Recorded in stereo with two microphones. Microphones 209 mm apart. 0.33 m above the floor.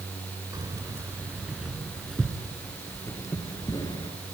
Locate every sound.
0.5 s keys jangling: 15° right (ahead or behind), 2.5 m; by 4.1 s 25° left (ahead or behind), 3 m